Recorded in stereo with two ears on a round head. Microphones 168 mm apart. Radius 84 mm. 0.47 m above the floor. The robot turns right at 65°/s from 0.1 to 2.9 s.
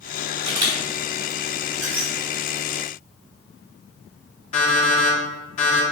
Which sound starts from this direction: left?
An alarm clock, at 4.5 s.